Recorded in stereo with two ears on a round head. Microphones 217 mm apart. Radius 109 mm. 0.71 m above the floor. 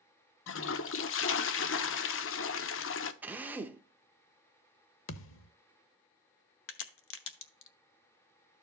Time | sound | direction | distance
0.5 | a toilet flushing | 55° left (ahead or behind) | 0.7 m
3.2 | a drill | 10° right (ahead or behind) | 0.7 m
5.1 | a thud | 55° left (ahead or behind) | 0.7 m
6.7 | a crack | 50° left (ahead or behind) | 0.9 m